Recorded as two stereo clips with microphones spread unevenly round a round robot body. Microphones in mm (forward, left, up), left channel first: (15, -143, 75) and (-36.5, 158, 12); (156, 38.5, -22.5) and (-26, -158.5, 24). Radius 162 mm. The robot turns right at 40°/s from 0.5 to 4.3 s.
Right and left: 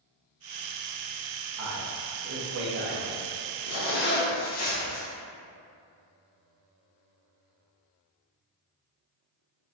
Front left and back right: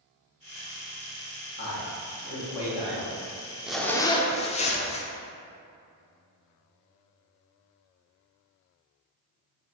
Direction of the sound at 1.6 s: 95° left.